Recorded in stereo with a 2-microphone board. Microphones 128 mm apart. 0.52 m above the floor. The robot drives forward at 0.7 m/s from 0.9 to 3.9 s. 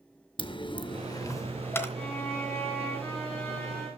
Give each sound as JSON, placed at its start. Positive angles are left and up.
{"t": 0.4, "sound": "a dropped coin", "side_deg": 40, "distance_m": 0.5}
{"t": 1.9, "sound": "a violin", "side_deg": 15, "distance_m": 2.5}